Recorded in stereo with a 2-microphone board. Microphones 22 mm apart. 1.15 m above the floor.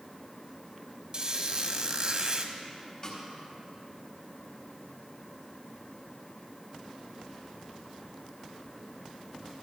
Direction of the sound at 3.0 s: 40° left (ahead or behind).